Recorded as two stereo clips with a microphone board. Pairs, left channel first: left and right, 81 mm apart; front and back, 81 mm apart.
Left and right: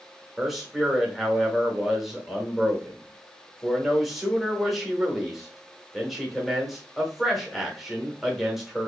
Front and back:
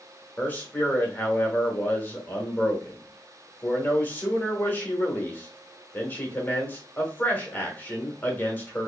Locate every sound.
0.4 s a man speaking: 5° right, 1.0 m